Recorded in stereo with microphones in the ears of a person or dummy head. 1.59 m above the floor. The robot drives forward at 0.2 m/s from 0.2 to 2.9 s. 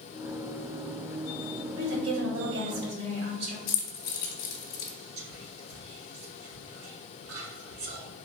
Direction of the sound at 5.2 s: 85° right.